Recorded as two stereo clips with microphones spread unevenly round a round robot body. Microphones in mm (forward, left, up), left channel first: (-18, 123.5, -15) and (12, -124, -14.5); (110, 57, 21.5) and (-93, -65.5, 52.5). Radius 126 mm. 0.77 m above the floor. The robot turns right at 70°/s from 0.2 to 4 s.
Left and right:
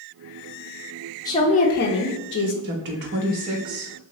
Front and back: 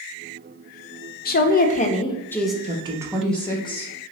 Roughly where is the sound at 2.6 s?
Right.